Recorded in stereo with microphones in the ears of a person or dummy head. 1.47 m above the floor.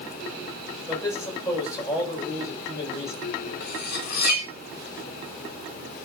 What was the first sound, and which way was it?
A man speaking, 20° left (ahead or behind).